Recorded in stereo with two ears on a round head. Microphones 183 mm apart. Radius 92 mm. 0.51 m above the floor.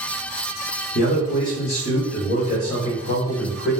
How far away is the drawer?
No drawer in this recording.